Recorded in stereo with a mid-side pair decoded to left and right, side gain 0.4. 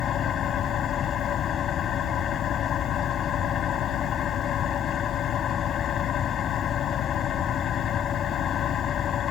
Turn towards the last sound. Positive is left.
turn(degrees=70)